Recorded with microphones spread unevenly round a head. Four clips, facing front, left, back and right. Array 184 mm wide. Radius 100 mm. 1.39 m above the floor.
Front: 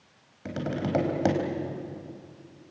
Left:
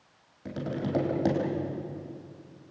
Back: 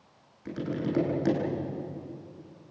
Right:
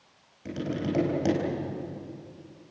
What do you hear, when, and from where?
0.5 s tapping: 10° left, 4.5 m